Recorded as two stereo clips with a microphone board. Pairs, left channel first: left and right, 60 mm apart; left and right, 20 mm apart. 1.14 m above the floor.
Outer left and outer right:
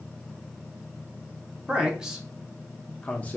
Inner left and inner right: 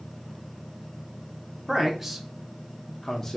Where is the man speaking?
20° right (ahead or behind), 1.0 m; by 3.4 s 30° left (ahead or behind), 0.6 m.